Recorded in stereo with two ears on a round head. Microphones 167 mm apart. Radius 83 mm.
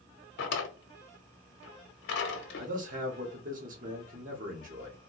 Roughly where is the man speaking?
Right.